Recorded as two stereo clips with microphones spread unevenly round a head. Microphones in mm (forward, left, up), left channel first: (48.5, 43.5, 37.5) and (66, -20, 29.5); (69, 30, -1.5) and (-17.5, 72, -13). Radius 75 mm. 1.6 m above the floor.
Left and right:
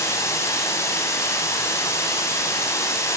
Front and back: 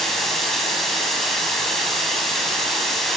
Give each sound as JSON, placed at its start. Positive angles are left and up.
{"t": 0.0, "sound": "running water", "azimuth_deg": 60, "distance_m": 9.0}